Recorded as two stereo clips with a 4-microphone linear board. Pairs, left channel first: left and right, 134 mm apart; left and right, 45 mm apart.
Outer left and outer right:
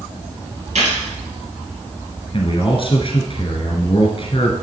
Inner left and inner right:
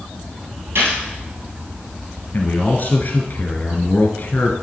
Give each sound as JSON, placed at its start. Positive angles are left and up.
{"t": 0.8, "sound": "a gunshot", "side_deg": -65, "distance_m": 3.5}
{"t": 2.3, "sound": "a man speaking", "side_deg": 45, "distance_m": 1.5}